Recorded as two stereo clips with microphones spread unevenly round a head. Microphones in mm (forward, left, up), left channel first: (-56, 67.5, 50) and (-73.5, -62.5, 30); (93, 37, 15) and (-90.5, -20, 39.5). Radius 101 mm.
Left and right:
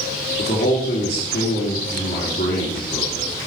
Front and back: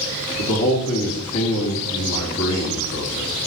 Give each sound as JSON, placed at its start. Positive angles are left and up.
{"t": 0.4, "sound": "a man speaking", "azimuth_deg": 40, "distance_m": 2.5}